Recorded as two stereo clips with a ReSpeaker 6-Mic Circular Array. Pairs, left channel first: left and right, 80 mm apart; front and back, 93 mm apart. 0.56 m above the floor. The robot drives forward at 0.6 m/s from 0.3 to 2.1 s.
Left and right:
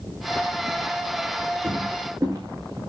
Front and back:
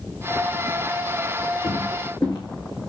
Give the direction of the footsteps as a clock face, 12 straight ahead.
1 o'clock.